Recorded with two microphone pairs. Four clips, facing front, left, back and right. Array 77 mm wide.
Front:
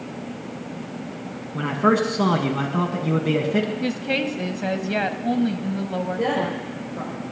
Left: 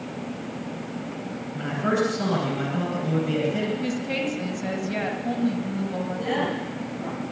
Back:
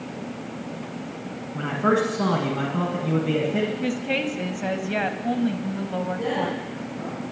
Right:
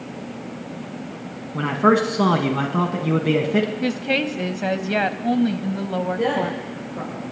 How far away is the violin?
I don't hear a violin.